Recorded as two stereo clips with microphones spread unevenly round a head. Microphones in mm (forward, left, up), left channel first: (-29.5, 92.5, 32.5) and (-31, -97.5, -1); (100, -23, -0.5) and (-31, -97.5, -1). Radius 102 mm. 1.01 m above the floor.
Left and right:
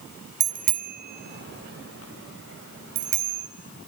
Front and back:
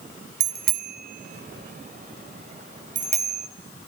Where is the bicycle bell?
145° right, 2.5 m; by 3.5 s 110° right, 4.5 m.